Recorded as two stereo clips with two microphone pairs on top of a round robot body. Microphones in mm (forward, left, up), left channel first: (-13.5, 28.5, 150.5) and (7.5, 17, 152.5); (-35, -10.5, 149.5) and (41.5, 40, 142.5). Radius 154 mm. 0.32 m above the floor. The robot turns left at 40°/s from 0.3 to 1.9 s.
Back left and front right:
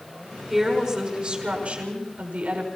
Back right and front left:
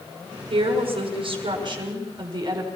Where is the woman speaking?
45° left, 6 m; by 2.7 s 15° right, 6 m.